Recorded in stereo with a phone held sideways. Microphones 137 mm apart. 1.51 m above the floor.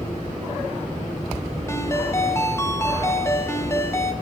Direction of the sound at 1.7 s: 20° left (ahead or behind).